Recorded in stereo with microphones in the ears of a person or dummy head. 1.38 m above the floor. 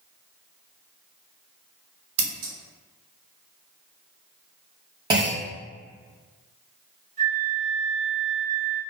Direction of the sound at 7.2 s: 40° right (ahead or behind).